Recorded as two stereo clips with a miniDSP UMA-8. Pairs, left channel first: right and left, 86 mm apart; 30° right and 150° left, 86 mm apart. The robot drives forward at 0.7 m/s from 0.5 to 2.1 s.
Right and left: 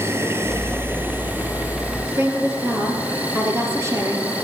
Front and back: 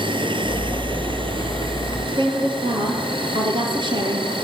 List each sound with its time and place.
0.0 s an insect: 150° left, 1.6 m; by 4.5 s 160° left, 2.5 m
2.1 s a woman speaking: 145° left, 4 m